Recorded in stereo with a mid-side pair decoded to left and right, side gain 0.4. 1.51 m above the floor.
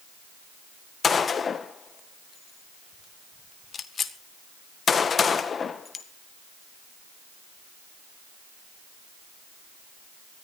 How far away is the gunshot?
About 1.7 m.